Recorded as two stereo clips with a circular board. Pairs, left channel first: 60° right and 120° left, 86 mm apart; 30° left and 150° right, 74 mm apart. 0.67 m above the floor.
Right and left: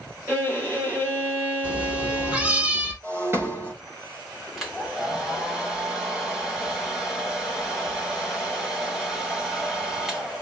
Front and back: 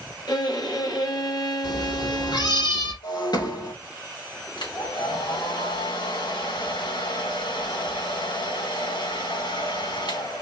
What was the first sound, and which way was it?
A violin, 55° left.